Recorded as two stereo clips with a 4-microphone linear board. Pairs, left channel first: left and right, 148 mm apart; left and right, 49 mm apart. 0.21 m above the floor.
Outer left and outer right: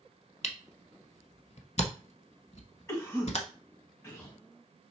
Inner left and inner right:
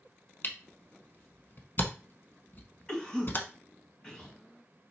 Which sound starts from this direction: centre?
A cough, at 2.9 s.